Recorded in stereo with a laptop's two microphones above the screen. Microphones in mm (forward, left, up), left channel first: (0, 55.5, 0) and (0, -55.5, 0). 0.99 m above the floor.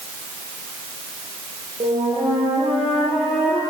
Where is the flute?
70° right (ahead or behind), 8 m.